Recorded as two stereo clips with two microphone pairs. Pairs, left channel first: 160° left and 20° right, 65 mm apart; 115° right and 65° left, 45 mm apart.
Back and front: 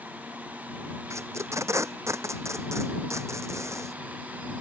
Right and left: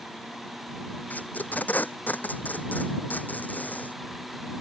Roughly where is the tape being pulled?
Ahead right.